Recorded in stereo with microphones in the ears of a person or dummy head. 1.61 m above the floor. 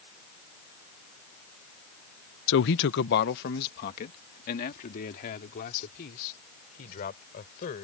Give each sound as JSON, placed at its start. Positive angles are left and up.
{"t": 2.5, "sound": "a man speaking", "side_deg": 75}